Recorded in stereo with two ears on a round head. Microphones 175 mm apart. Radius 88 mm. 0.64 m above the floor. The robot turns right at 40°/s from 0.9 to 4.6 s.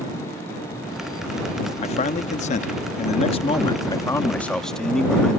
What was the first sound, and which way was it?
A man speaking, 65° left.